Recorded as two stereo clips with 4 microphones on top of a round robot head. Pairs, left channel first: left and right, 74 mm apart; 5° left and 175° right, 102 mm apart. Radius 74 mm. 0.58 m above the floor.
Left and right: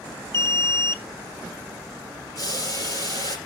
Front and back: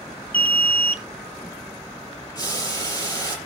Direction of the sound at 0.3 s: 70° left.